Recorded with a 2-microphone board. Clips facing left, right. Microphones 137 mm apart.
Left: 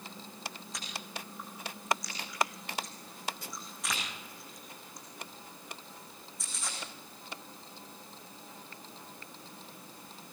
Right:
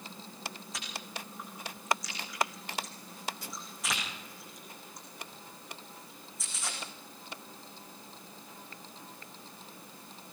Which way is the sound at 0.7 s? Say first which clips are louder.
Even; centre (ahead or behind).